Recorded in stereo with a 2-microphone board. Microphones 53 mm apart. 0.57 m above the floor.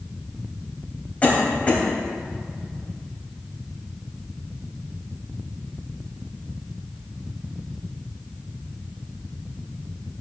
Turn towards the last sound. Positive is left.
turn(degrees=30)  # may be behind; listen again after turning